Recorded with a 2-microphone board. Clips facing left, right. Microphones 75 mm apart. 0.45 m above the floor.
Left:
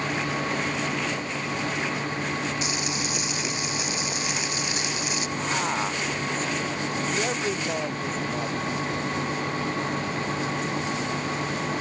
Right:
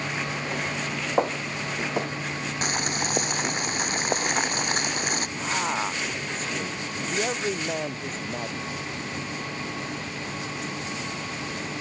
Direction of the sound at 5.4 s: Centre (ahead or behind).